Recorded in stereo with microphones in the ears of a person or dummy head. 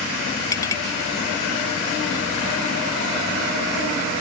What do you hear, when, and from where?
0.5 s a clink: 15° left (ahead or behind)